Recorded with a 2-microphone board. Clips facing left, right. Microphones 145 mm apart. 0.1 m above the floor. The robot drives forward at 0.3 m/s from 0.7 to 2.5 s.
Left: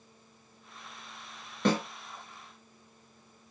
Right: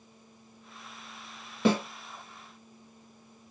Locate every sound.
1.6 s a snare drum: 5° right (ahead or behind), 1.2 m